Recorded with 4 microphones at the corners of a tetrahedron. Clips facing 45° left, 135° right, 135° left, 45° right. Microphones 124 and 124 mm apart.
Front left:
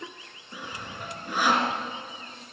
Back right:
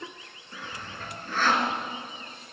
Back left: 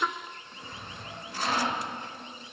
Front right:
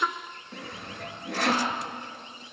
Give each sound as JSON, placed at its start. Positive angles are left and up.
{"t": 0.5, "sound": "sawing", "azimuth_deg": -30, "distance_m": 3.0}